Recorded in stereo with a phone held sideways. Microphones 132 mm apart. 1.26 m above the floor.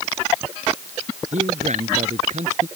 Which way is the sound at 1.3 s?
60° right (ahead or behind).